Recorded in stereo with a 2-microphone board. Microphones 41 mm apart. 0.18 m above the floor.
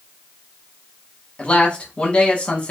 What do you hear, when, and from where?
1.4 s a man speaking: 30° left (ahead or behind), 1.1 m